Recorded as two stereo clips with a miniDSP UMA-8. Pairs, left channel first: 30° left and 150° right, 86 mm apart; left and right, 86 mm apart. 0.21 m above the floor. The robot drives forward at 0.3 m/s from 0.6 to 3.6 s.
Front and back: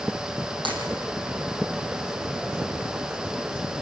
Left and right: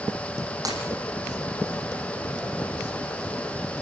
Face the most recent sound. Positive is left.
turn(degrees=-140)